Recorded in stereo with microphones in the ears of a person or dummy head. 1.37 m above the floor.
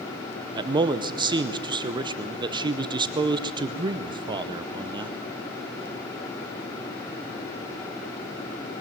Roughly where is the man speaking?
Right.